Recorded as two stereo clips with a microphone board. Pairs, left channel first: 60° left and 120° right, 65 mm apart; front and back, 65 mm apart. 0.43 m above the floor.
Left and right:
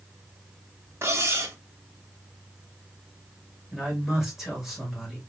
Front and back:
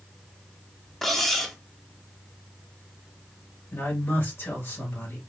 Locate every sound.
1.0 s cutlery clinking: 85° right, 0.6 m
3.7 s a man speaking: 35° right, 2 m